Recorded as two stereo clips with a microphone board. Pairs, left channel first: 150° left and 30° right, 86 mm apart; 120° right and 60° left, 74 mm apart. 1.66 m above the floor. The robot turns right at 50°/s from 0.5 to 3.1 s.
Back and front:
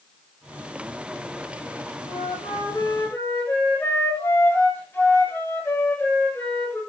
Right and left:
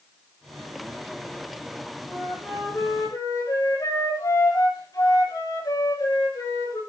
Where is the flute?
165° left, 7 m; by 6.8 s 145° right, 7 m.